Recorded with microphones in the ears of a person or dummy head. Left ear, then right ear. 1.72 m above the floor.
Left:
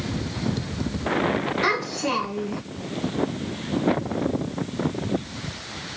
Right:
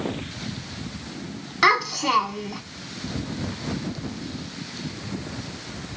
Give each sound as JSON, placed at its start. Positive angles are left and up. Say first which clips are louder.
{"t": 1.6, "sound": "a child speaking", "louder": "right 8 dB", "side_deg": -50, "distance_m": 1.0}